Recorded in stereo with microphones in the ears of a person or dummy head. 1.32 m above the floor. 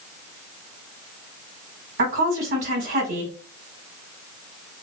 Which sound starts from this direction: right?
A woman speaking, at 2.0 s.